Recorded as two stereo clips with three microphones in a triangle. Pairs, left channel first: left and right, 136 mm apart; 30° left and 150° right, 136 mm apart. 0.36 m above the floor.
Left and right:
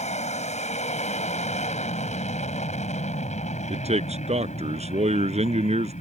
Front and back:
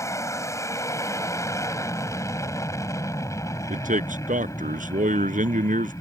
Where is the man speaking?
130° right.